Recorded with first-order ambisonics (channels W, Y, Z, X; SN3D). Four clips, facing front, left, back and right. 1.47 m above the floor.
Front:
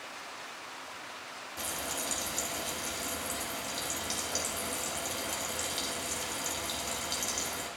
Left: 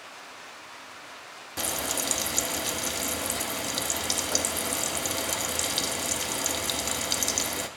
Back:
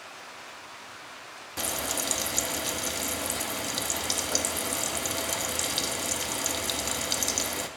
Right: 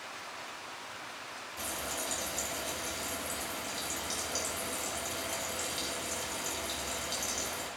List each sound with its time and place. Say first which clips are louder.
1.6 s frying: left 8 dB, back 6 dB; 125° left, 0.6 m